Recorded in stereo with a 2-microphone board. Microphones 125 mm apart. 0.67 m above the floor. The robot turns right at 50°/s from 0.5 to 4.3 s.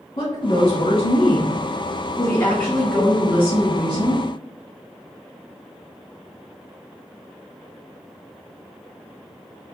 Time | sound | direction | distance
0.2 | a woman speaking | 55° left | 1.5 m